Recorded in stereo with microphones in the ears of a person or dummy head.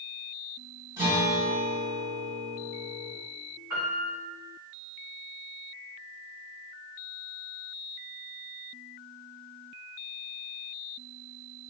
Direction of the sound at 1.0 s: 20° right (ahead or behind).